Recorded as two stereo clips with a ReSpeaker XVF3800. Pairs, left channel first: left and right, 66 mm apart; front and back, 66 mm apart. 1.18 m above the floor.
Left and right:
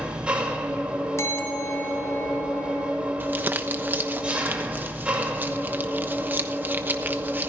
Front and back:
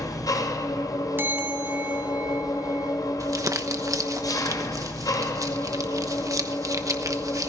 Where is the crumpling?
150° right, 1.1 m.